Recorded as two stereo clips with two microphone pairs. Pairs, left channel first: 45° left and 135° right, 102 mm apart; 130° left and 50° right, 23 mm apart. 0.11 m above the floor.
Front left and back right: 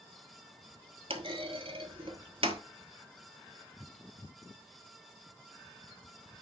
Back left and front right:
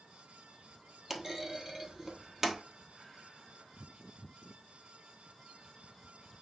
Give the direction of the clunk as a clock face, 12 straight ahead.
4 o'clock.